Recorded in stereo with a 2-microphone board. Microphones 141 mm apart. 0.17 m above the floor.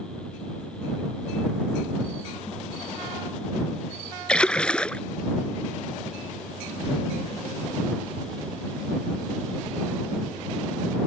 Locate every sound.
4.3 s a splash: 10° left (ahead or behind)